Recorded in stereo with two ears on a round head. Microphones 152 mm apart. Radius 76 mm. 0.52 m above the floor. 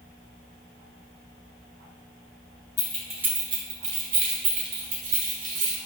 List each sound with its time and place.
2.8 s keys jangling: 15° left (ahead or behind), 0.8 m; by 5.8 s 70° right (ahead or behind), 2 m